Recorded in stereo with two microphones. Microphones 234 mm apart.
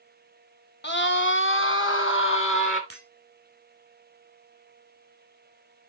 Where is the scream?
50° left (ahead or behind), 1.3 m; by 2.8 s 60° left (ahead or behind), 3 m.